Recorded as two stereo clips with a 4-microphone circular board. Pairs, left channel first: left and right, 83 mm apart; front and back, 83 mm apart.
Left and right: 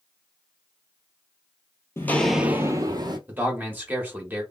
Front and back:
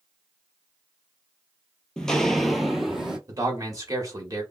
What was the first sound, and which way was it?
Footsteps, 75° left.